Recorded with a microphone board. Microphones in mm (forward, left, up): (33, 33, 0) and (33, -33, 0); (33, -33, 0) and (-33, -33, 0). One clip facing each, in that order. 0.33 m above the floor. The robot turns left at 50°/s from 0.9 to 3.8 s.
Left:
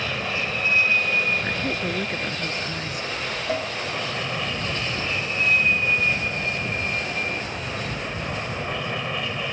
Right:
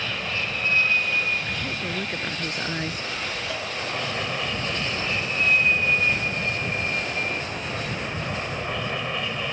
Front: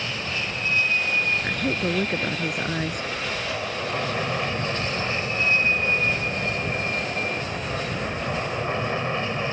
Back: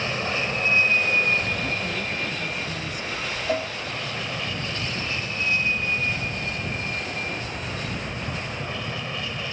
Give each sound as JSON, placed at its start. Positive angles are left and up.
{"t": 0.0, "sound": "an aircraft", "azimuth_deg": 145}
{"t": 1.4, "sound": "a woman speaking", "azimuth_deg": 40}
{"t": 3.5, "sound": "a cowbell", "azimuth_deg": 145}